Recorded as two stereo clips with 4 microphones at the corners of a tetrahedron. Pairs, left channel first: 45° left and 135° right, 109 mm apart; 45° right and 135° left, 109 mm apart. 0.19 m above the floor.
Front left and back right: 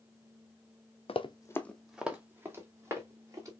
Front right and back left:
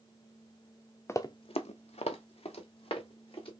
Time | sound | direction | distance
1.1 | running footsteps | 20° left | 0.7 m